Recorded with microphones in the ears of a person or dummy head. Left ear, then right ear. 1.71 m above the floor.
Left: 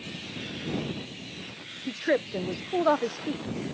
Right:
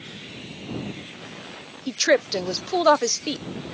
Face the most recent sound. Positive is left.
turn(degrees=-75)  # may be behind; listen again after turning